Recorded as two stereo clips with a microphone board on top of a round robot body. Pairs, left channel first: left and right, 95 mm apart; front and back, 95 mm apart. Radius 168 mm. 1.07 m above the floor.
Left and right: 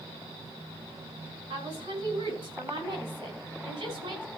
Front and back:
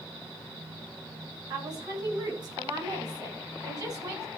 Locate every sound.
1.5 s a woman speaking: 130° right, 9 m; by 4.3 s 125° right, 6.5 m